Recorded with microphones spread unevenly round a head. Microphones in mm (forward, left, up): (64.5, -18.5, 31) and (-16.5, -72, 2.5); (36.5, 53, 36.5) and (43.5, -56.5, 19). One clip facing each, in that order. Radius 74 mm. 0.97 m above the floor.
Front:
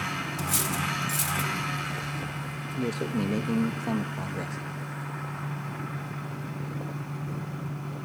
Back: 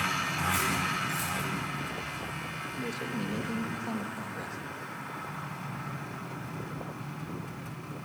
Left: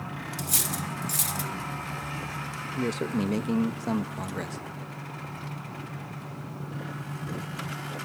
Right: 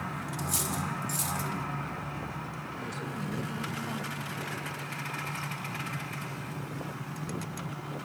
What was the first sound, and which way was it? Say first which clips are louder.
Cutlery clinking: back 1 dB, right 1 dB; 75° left.